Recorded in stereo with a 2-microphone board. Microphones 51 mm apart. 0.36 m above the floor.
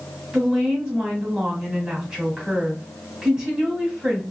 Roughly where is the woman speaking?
Centre.